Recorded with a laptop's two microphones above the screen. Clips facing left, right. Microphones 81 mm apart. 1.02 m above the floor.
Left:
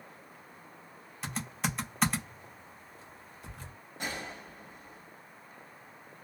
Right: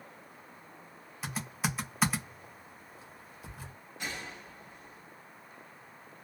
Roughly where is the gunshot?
Left.